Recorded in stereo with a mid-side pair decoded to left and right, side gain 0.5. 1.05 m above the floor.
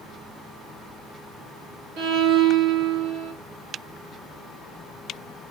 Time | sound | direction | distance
2.0 | a violin | 70° right | 1.4 m